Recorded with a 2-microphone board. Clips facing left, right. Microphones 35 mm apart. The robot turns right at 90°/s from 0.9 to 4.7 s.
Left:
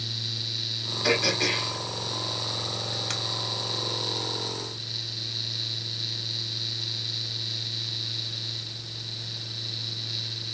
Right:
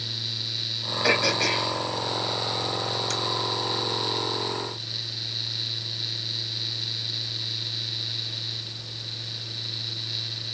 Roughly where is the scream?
No scream in this recording.